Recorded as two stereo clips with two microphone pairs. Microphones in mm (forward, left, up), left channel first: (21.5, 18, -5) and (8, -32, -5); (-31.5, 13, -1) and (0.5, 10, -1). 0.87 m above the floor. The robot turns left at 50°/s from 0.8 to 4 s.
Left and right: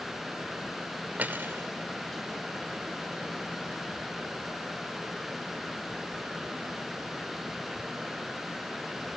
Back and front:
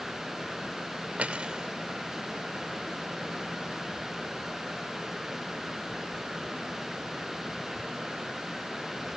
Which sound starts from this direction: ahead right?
Cutlery clinking, at 1.2 s.